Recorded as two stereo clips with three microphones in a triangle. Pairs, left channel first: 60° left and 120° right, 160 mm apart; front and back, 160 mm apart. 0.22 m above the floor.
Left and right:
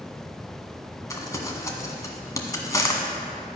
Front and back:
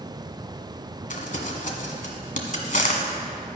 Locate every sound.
1.1 s crumpling: 5° right, 1.5 m